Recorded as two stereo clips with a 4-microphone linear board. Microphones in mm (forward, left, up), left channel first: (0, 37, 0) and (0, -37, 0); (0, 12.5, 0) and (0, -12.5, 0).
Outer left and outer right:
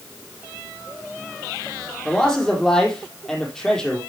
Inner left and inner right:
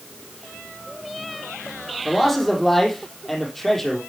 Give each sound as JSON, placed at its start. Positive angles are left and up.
{"t": 2.0, "sound": "a man speaking", "side_deg": 5, "distance_m": 3.5}